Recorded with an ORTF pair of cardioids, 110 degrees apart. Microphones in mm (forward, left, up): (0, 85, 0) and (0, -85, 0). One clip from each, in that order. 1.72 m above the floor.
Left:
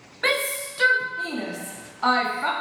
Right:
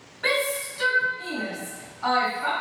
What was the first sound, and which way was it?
A shout, 35° left.